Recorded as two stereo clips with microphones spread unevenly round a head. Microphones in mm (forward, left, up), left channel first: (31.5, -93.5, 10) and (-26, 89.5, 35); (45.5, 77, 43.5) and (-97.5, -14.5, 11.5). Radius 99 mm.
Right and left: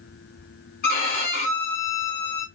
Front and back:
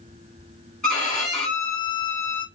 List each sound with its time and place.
0.8 s a violin: 40° right, 0.9 m